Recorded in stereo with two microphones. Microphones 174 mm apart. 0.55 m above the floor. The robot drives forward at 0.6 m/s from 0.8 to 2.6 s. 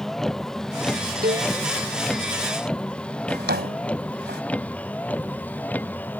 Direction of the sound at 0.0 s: Centre (ahead or behind).